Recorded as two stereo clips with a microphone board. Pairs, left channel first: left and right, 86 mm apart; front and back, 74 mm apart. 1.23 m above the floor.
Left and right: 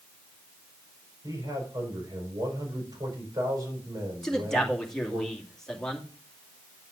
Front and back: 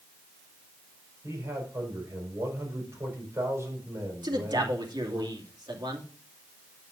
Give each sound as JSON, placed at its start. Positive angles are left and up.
{"t": 1.2, "sound": "a man speaking", "azimuth_deg": -130, "distance_m": 5.5}
{"t": 4.2, "sound": "a man speaking", "azimuth_deg": 175, "distance_m": 2.5}